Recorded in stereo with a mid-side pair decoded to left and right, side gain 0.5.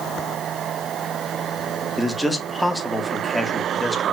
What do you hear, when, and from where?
2.0 s a man speaking: 5° left, 2.5 m